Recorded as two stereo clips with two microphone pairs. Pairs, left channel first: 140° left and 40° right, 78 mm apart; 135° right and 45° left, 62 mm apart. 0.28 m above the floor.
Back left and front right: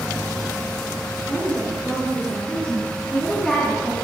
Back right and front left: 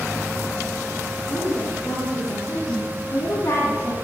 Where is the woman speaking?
165° right, 5.5 m; by 4.0 s 130° right, 3 m.